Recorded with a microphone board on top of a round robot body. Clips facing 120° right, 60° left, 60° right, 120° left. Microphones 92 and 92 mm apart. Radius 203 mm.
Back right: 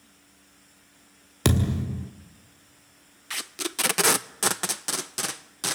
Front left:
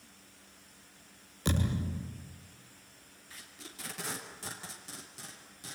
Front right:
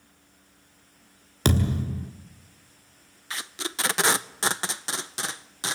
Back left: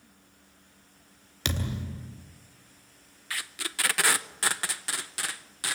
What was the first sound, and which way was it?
A thud, 110° right.